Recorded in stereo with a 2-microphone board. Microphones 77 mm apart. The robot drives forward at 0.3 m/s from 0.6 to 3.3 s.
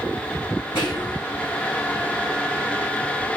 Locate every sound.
0.8 s whispering: 60° left (ahead or behind), 6 m